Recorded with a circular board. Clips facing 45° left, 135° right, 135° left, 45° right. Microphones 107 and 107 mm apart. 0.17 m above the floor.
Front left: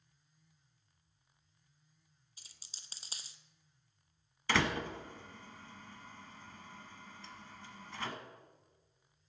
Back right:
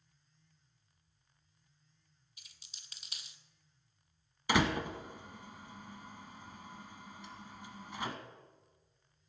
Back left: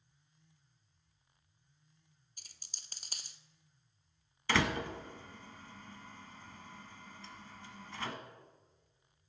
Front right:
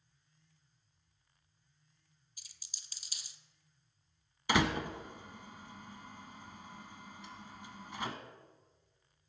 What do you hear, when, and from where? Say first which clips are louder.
2.4 s a dropped coin: front left 1 dB, back left 2 dB; 100° left, 0.7 m
4.5 s a door slam: back right 2 dB, front right 1 dB; 90° right, 1.0 m